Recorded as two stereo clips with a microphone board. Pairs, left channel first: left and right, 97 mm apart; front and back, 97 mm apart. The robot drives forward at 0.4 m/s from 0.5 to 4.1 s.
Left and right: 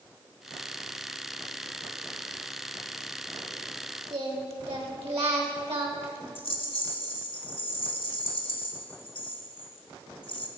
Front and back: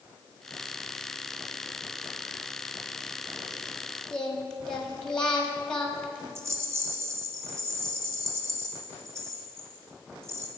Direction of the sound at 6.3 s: 120° left.